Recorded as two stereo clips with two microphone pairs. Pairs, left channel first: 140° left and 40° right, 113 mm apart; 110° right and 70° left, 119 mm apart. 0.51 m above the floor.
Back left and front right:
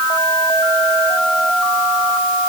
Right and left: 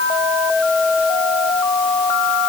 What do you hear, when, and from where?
Only background noise.